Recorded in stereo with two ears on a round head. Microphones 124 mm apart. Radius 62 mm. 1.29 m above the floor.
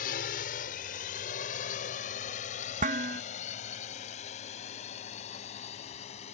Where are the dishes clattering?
55° right (ahead or behind).